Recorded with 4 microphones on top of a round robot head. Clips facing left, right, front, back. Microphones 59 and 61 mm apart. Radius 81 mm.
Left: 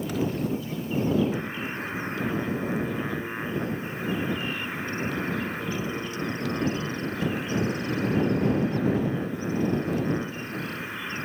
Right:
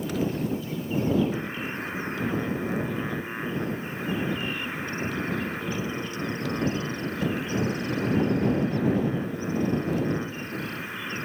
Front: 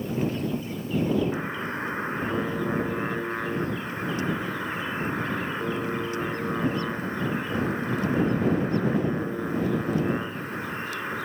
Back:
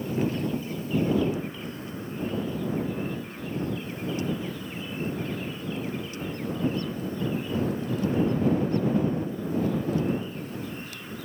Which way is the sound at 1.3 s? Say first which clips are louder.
Even, front 4 dB; straight ahead.